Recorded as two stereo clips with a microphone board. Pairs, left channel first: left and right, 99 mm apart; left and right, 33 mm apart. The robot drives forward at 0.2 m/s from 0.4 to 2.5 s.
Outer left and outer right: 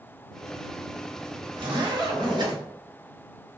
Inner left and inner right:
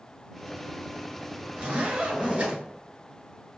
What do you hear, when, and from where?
1.6 s a zipper: 50° right (ahead or behind), 1.5 m